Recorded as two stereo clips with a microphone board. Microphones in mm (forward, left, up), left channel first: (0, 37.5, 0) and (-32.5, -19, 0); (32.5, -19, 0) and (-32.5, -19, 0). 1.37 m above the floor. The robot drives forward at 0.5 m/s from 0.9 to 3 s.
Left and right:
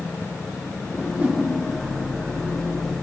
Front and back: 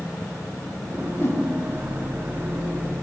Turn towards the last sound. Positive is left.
turn(degrees=-65)